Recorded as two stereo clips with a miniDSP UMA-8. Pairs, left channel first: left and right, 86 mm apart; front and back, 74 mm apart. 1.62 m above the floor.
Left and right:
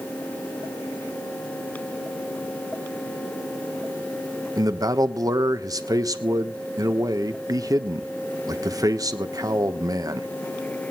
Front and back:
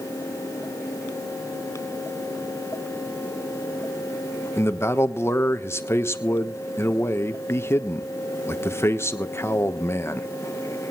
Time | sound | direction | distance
4.6 | a man speaking | 50° right | 1.2 m